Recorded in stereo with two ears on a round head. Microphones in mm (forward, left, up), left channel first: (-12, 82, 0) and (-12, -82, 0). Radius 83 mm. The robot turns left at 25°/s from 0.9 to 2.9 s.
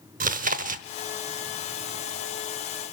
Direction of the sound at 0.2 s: 45° right (ahead or behind).